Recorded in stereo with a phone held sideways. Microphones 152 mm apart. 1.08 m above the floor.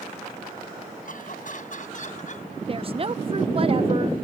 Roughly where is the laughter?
Left.